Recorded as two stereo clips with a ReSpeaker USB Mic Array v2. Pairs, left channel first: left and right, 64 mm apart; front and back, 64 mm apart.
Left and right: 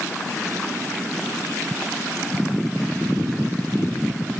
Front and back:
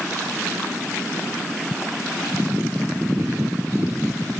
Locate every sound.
Only background noise.